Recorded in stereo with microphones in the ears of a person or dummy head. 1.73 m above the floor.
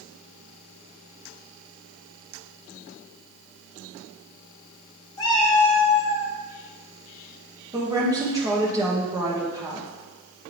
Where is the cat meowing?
25° left (ahead or behind), 1.7 m; by 6.3 s 40° left (ahead or behind), 1.7 m.